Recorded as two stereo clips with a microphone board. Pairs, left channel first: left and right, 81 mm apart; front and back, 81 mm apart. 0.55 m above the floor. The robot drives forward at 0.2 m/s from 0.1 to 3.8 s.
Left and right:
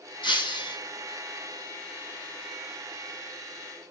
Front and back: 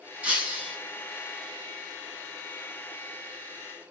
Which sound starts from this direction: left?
Breaking glass, at 0.2 s.